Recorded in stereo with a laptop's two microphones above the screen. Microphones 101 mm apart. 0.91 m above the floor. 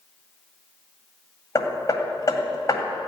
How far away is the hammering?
About 2 m.